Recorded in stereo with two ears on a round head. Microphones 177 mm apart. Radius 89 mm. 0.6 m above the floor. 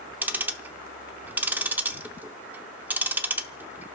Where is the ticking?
10° right (ahead or behind), 0.7 m.